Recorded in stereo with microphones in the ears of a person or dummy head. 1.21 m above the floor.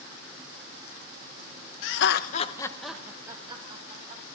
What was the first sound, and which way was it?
Laughter, 70° left (ahead or behind).